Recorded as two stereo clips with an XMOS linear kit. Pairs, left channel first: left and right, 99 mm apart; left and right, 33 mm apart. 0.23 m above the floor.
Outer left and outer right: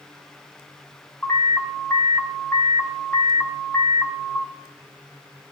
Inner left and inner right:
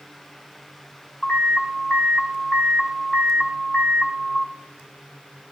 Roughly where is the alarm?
Centre.